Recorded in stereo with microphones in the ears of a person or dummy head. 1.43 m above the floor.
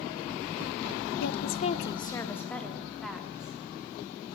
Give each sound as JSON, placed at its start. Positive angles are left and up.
{"t": 1.2, "sound": "a woman speaking", "side_deg": 70, "distance_m": 0.8}